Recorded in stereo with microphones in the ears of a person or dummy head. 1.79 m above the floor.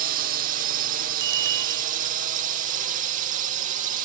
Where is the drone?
45° right (ahead or behind).